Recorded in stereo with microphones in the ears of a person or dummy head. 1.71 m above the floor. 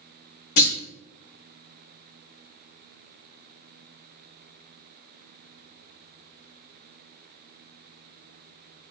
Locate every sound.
0.6 s a clunk: 55° left (ahead or behind), 0.7 m